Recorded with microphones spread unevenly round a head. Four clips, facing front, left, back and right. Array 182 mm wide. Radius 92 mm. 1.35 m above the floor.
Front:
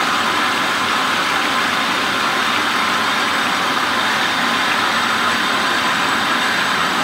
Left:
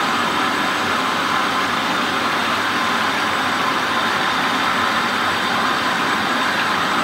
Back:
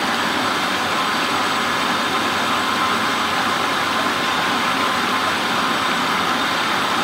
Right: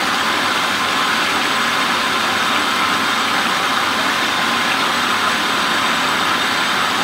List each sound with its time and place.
Only background noise.